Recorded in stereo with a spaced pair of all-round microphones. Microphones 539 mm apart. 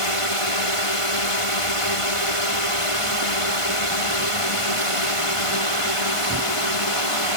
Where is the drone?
75° left (ahead or behind).